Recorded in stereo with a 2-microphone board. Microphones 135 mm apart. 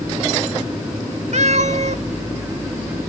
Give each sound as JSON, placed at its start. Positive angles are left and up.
{"t": 1.3, "sound": "a cat meowing", "side_deg": -55, "distance_m": 1.0}